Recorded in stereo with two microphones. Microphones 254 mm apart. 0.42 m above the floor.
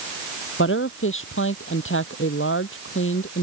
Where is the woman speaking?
50° left (ahead or behind).